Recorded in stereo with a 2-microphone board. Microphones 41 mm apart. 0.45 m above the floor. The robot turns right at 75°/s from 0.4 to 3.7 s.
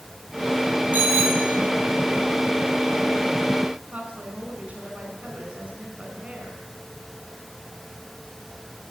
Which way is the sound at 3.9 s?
30° right (ahead or behind).